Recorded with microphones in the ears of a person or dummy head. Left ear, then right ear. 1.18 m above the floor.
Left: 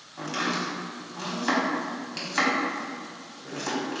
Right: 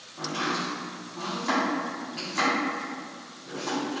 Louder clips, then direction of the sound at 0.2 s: Even; 75° left (ahead or behind).